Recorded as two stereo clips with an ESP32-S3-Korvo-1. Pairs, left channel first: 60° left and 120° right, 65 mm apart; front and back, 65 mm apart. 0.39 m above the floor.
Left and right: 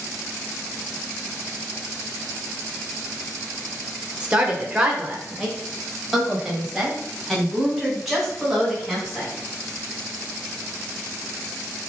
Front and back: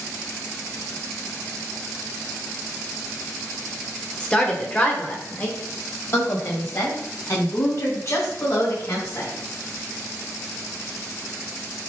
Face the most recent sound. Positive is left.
turn(degrees=-30)